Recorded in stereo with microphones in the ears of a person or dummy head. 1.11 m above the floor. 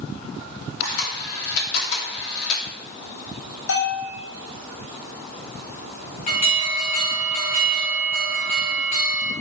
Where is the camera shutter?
80° left, 2.5 m.